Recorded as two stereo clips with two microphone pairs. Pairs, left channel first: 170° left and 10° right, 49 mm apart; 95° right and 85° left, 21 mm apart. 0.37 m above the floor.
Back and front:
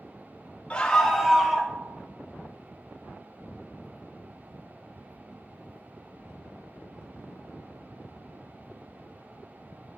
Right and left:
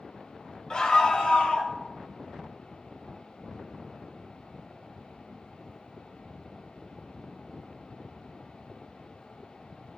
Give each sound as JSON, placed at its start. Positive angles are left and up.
{"t": 0.7, "sound": "a scream", "azimuth_deg": -135, "distance_m": 1.5}